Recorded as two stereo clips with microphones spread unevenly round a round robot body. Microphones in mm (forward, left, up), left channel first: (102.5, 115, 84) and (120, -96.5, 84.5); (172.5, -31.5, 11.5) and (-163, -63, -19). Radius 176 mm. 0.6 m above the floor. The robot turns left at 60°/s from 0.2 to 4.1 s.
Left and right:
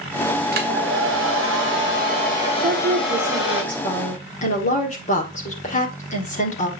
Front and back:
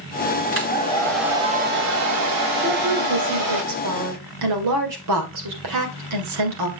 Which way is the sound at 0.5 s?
45° right.